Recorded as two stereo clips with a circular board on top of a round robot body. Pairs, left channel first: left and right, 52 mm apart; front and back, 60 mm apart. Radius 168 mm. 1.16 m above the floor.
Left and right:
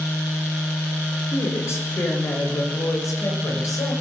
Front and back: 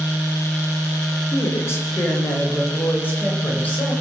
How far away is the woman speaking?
About 6.5 m.